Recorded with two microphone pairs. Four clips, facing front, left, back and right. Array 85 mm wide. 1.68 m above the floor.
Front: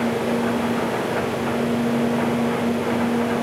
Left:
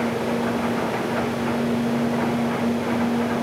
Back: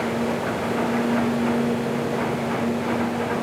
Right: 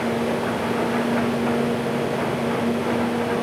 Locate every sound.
Only background noise.